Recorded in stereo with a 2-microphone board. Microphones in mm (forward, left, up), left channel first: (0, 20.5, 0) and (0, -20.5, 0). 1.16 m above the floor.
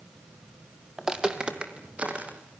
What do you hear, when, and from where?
1.0 s footsteps: 15° right (ahead or behind), 1.8 m; by 2.4 s 35° right (ahead or behind), 3.5 m